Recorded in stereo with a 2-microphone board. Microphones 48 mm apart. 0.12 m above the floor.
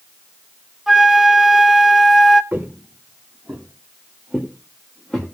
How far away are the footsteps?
About 1.9 m.